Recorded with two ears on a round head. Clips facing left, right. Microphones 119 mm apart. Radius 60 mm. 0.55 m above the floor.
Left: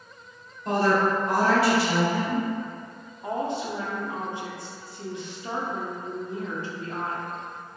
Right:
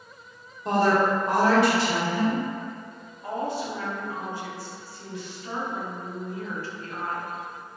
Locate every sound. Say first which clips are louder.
0.7 s a woman speaking: right 1 dB; 25° right (ahead or behind), 1.1 m
3.2 s a woman speaking: left 1 dB; 20° left (ahead or behind), 0.6 m